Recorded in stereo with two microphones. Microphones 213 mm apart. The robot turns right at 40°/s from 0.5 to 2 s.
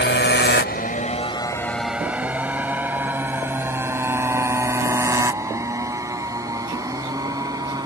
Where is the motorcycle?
60° left (ahead or behind); by 7.9 s 15° right (ahead or behind).